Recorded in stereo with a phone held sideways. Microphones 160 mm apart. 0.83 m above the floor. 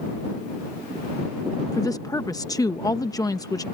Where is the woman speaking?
20° left (ahead or behind).